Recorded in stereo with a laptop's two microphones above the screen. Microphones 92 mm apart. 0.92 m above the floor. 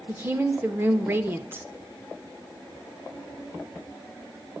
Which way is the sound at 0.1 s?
25° right (ahead or behind).